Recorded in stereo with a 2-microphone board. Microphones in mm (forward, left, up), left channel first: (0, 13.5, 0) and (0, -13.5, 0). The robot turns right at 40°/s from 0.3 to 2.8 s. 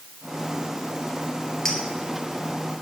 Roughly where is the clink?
Centre.